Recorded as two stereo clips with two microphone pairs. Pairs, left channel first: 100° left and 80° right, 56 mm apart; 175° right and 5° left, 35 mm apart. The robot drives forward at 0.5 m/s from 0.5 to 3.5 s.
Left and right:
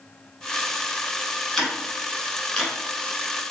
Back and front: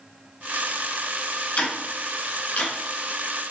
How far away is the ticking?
About 1.4 m.